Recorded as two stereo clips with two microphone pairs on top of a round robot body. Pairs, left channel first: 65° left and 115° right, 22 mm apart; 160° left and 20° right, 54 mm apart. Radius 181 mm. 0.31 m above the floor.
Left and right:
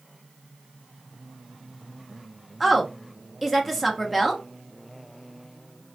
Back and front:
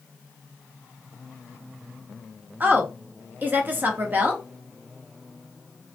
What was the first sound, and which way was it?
A woman speaking, 5° right.